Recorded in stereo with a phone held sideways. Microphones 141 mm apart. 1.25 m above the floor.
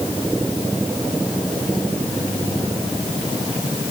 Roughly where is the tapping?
I don't hear tapping.